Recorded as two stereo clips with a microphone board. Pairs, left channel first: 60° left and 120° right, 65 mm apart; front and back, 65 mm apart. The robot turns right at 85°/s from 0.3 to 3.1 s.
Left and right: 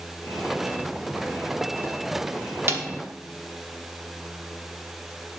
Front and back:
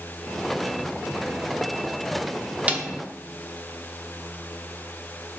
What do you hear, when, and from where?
2.7 s a snare drum: 125° right, 0.8 m; by 2.9 s 105° right, 0.8 m